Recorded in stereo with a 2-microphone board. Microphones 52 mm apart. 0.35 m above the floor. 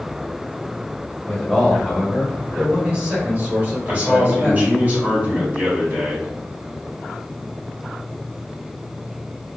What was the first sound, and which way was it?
A man speaking, 10° left (ahead or behind).